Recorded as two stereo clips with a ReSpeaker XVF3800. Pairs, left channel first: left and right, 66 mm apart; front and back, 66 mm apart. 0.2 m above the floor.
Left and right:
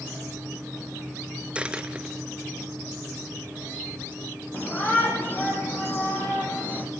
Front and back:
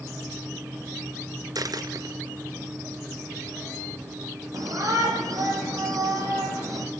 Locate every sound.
1.6 s a dropped coin: 160° right, 1.2 m
4.5 s a shout: 150° left, 10 m